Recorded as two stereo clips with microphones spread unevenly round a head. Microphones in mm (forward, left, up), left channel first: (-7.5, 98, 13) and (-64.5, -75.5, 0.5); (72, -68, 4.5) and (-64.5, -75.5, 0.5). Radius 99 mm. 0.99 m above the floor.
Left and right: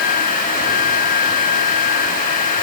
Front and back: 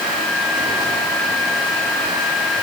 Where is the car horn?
I don't hear a car horn.